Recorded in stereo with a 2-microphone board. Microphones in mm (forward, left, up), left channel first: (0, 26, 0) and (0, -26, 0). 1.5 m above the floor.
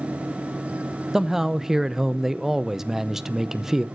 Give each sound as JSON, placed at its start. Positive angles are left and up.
{"t": 1.1, "sound": "a man speaking", "side_deg": -10, "distance_m": 0.6}